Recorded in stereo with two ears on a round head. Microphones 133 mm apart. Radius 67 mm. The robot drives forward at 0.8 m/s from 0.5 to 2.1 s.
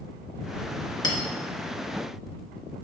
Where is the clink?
25° left (ahead or behind), 1.5 m; by 1.2 s 30° left (ahead or behind), 1.4 m.